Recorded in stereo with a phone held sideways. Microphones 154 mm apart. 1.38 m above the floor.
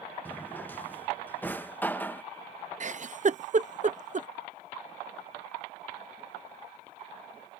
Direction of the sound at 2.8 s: 50° right (ahead or behind).